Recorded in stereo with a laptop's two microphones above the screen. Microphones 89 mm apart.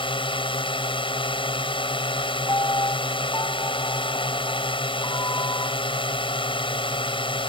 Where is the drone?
80° left.